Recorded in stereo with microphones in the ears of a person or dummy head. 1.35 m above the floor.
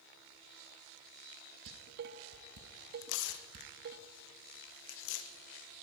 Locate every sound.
1.7 s dishes clattering: 55° right (ahead or behind), 1.4 m
3.0 s tearing paper: 70° left (ahead or behind), 2 m